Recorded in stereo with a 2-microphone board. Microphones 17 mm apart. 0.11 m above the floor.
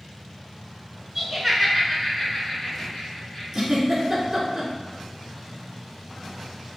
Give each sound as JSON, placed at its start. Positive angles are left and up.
{"t": 1.1, "sound": "laughter", "side_deg": -25, "distance_m": 1.1}
{"t": 3.5, "sound": "a giggle", "side_deg": -20, "distance_m": 0.9}